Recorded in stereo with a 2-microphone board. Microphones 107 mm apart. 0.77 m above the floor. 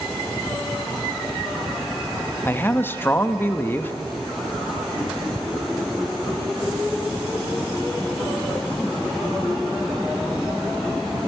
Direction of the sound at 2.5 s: 20° left (ahead or behind).